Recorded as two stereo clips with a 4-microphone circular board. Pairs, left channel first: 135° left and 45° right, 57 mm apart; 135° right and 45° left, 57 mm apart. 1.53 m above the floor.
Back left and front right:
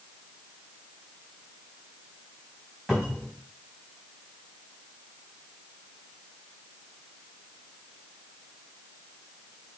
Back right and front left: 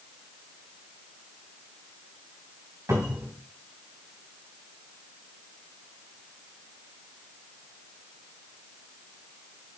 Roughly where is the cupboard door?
Ahead left.